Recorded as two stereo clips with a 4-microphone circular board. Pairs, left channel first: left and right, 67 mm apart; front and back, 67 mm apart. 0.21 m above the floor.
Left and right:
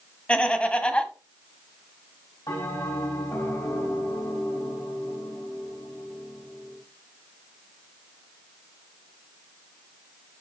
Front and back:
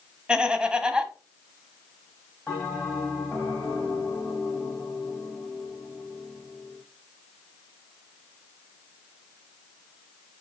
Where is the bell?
80° left, 6 m.